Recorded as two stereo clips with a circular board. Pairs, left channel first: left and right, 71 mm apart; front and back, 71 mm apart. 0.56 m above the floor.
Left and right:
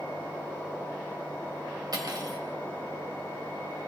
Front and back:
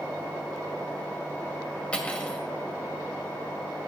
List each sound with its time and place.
1.9 s cutlery clinking: 70° right, 1.6 m